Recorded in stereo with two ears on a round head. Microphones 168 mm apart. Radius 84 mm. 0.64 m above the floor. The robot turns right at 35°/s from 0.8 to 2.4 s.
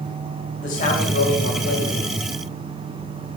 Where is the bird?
I don't hear a bird.